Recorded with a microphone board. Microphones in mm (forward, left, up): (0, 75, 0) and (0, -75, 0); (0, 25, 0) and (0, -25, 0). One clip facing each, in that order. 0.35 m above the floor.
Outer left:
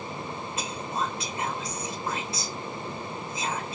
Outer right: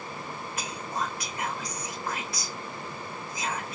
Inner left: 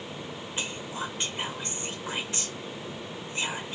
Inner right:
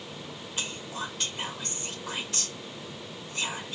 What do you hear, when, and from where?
0.6 s whispering: 25° left (ahead or behind), 1.1 m